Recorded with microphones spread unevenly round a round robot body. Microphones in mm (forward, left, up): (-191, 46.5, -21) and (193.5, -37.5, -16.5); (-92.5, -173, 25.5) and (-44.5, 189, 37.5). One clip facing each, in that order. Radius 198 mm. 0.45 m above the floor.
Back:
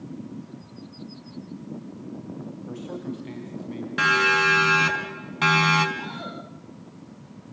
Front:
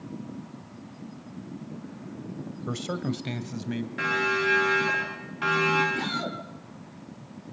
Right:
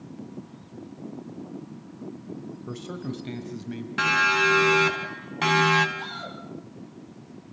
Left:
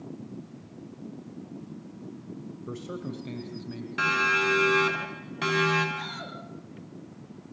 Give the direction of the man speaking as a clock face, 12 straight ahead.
12 o'clock.